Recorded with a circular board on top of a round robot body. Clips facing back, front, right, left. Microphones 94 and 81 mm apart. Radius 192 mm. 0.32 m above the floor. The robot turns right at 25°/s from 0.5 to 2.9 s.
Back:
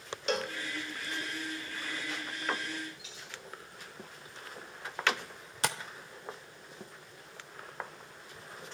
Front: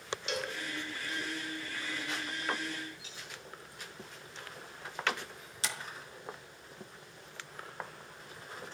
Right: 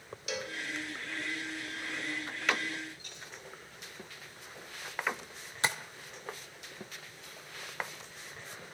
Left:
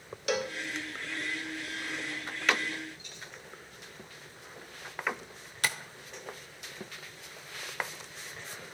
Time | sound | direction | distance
0.3 | a cowbell | 130° left | 0.7 m
3.0 | a dropped coin | 55° right | 9 m
5.6 | tapping | 155° right | 1.1 m